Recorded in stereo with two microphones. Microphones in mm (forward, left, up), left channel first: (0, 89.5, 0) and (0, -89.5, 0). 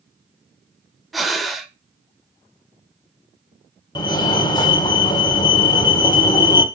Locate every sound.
1.1 s breathing: centre (ahead or behind), 1.3 m
4.0 s a fire alarm: 20° left (ahead or behind), 1.8 m